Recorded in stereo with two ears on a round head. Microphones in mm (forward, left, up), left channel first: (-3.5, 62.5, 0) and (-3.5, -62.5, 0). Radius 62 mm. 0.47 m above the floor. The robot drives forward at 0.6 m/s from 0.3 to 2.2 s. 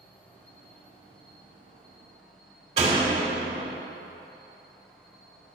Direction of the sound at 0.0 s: 15° left (ahead or behind).